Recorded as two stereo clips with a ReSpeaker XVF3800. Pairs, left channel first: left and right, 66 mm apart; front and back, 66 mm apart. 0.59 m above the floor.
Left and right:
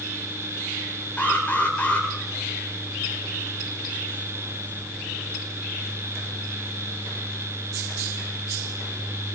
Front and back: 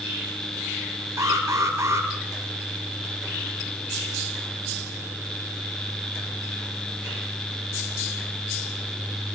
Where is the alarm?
155° left, 3 m.